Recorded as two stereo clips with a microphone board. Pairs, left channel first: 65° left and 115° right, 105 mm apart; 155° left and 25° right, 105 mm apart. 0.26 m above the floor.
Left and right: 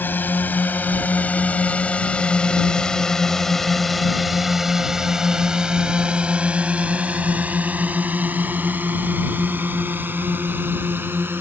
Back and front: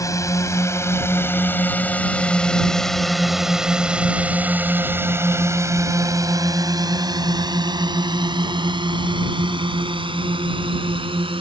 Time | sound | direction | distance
0.0 | a drone | 125° left | ?